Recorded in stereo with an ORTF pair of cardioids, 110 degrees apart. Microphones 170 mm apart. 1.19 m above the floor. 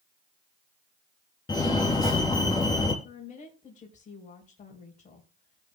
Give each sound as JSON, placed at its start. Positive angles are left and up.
{"t": 1.5, "sound": "a fire alarm", "azimuth_deg": 25, "distance_m": 3.0}
{"t": 3.0, "sound": "a woman speaking", "azimuth_deg": 50, "distance_m": 4.0}